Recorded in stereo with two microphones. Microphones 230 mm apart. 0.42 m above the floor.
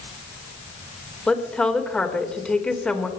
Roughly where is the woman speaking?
Centre.